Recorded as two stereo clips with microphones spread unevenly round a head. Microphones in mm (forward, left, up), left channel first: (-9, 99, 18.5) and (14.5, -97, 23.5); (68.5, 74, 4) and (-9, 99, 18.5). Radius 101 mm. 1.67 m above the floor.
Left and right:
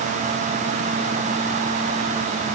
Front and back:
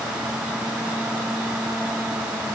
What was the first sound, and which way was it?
Only background noise.